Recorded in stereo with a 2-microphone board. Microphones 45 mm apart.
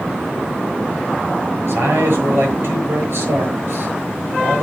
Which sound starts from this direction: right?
A man speaking, at 1.6 s.